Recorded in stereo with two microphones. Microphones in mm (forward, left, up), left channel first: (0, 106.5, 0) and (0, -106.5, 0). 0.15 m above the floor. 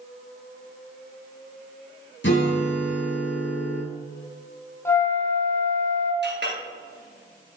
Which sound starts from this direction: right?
A clink, at 6.2 s.